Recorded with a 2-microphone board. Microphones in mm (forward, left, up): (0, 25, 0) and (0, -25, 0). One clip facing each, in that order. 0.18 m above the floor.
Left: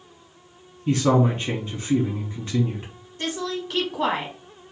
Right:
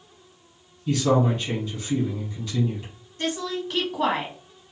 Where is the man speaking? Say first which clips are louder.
Left 1 dB; 35° left (ahead or behind), 1.4 m.